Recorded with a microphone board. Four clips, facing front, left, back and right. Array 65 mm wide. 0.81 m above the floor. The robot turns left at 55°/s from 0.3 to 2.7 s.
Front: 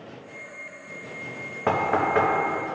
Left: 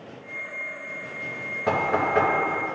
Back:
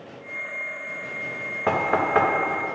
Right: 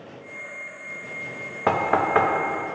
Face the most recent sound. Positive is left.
turn(degrees=-155)